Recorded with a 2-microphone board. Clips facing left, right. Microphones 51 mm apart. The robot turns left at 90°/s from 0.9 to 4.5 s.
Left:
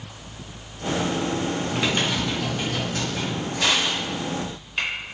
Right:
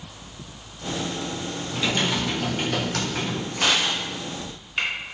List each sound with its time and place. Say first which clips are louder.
1.7 s typing on a keyboard: right 2 dB; 35° left, 0.5 m; by 3.5 s 125° right, 0.5 m
3.6 s crushing: even; 45° right (ahead or behind), 1.8 m; by 4.9 s centre (ahead or behind), 1.8 m